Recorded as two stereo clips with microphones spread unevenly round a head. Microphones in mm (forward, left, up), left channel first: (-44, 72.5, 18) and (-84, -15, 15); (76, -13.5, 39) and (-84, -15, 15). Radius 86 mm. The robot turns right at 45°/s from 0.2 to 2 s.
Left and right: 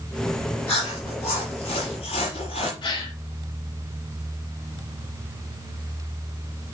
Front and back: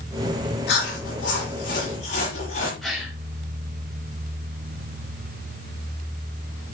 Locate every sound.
0.7 s chewing: 10° right, 7.5 m; by 2.7 s 50° left, 7.5 m
2.8 s a gasp: 85° left, 2.5 m